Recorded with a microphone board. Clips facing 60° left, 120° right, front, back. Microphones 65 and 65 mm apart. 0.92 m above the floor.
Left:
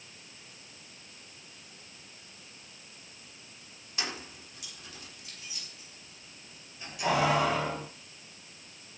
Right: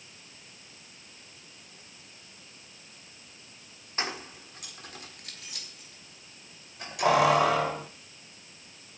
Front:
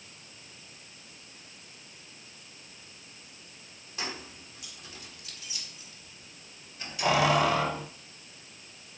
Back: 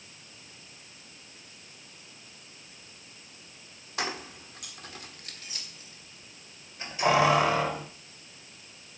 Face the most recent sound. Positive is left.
turn(degrees=-110)